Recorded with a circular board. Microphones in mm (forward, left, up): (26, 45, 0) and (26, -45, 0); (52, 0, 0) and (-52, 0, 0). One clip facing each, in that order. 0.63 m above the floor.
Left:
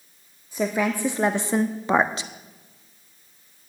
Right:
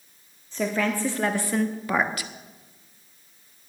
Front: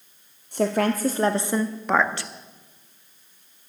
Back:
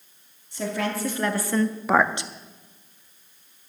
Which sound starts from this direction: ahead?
A woman speaking, at 0.5 s.